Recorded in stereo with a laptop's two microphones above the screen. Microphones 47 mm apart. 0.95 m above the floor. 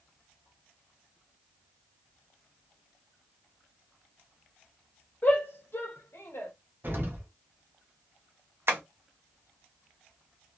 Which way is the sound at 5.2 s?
45° left (ahead or behind).